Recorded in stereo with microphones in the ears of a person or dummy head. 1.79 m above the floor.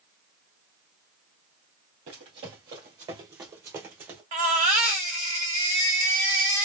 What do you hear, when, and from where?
2.1 s running footsteps: 25° right (ahead or behind), 1.9 m; by 4.2 s 15° right (ahead or behind), 2 m
4.3 s a baby crying: 25° right (ahead or behind), 0.9 m